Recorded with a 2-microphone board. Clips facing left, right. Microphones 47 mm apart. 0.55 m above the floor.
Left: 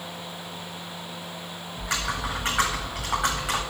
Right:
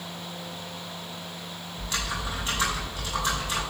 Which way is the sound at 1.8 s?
90° left.